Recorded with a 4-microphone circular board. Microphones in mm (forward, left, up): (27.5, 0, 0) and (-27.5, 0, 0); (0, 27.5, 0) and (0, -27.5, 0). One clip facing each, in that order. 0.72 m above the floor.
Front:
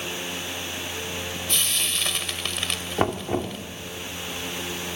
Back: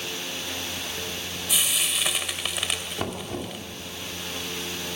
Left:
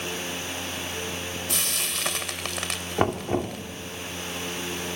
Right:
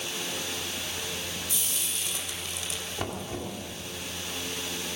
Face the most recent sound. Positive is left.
turn(degrees=50)